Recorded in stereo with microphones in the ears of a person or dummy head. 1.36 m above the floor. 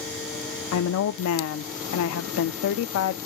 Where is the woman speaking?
70° left (ahead or behind), 0.6 m.